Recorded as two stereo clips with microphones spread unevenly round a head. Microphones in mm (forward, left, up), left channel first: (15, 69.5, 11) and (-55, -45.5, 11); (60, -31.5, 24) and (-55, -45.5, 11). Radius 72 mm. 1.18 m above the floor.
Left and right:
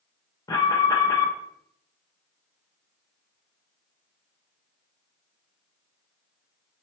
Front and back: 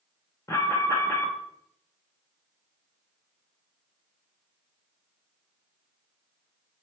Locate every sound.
0.5 s an alarm: 60° left, 0.8 m